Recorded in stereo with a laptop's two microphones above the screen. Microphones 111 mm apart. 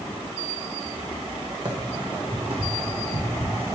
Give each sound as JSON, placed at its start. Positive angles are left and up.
{"t": 1.6, "sound": "running footsteps", "side_deg": -45, "distance_m": 2.5}